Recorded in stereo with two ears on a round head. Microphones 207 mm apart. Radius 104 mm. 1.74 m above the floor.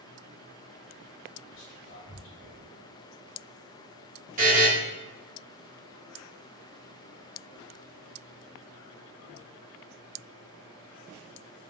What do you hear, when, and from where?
1.5 s whispering: 55° left (ahead or behind), 1.3 m
4.4 s a buzzer: 35° right (ahead or behind), 1.1 m